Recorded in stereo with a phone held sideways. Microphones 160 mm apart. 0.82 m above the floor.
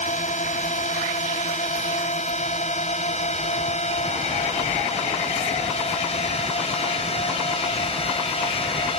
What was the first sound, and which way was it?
A drone, 55° left (ahead or behind).